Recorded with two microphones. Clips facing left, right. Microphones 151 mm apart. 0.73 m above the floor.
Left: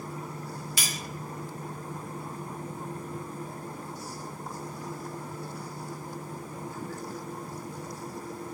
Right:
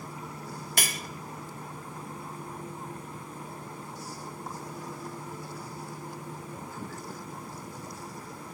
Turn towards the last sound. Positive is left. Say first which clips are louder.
# right 6 dB
turn(degrees=-60)  # may be behind; listen again after turning